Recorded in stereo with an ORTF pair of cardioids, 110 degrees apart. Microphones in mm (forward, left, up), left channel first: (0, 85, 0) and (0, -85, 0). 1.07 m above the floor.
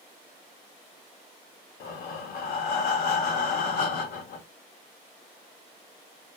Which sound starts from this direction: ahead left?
Breathing, at 1.8 s.